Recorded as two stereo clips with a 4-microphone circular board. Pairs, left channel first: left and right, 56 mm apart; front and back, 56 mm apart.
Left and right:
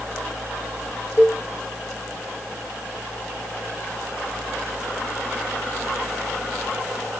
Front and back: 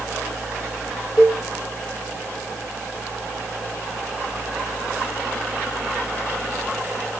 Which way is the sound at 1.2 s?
125° right.